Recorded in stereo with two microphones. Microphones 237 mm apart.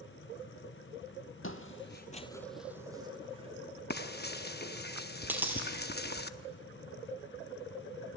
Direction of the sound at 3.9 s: 40° left (ahead or behind).